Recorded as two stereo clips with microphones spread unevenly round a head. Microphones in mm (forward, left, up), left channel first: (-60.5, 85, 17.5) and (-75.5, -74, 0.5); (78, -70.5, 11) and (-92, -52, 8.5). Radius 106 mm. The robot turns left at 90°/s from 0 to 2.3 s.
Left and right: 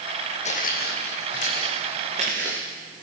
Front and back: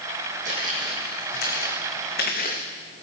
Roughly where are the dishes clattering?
I don't hear dishes clattering.